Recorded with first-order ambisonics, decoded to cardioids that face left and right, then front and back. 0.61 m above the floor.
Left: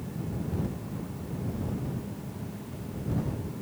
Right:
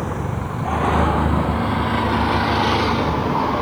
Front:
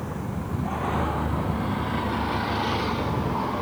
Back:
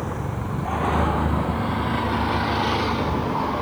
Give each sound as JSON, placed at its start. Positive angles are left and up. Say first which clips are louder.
{"t": 0.0, "sound": "a vehicle", "louder": "right 13 dB, back 4 dB", "azimuth_deg": -110}